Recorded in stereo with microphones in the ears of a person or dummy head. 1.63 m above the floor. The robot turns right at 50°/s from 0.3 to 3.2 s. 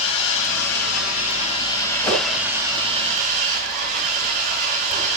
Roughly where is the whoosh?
Centre.